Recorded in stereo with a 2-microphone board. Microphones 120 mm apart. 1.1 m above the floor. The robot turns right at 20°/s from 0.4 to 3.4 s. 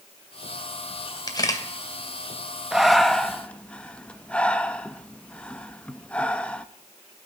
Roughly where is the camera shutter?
Left.